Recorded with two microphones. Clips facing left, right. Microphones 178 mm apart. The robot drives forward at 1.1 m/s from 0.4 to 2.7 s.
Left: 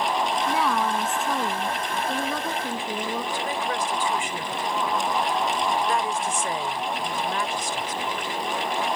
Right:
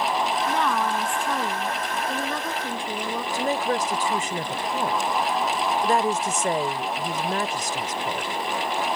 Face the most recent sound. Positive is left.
turn(degrees=-40)  # may be behind; listen again after turning